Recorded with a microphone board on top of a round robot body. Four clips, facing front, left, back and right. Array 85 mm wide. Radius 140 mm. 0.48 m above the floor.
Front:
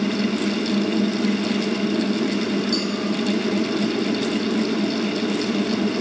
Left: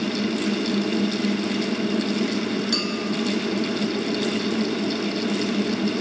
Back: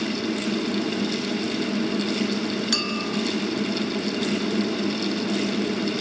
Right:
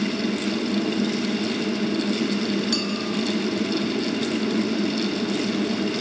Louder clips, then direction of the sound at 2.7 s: Even, front 4 dB; straight behind.